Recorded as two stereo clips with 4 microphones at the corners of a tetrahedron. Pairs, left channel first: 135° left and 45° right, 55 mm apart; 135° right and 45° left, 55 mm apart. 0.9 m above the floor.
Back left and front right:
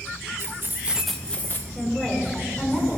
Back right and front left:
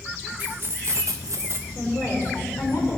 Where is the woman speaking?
155° right, 3 m.